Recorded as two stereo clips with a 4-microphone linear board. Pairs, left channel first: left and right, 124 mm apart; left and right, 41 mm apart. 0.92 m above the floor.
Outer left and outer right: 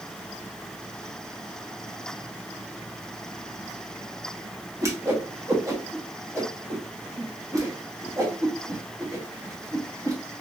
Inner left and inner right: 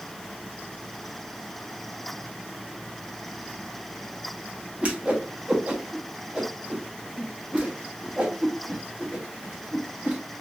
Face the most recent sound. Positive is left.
turn(degrees=-25)  # may be behind; listen again after turning